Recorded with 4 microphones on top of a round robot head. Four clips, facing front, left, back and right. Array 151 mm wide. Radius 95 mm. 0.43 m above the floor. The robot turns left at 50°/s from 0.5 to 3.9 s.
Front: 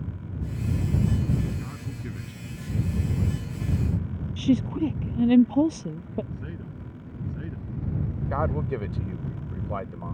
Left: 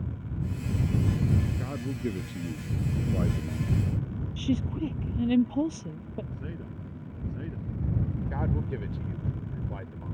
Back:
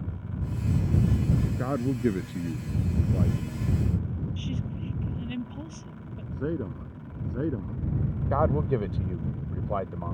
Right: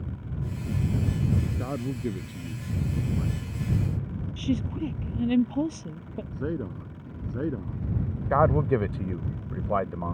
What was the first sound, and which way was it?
A man speaking, 155° right.